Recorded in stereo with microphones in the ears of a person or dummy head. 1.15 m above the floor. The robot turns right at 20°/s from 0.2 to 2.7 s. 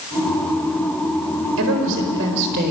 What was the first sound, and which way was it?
A woman speaking, 75° right (ahead or behind).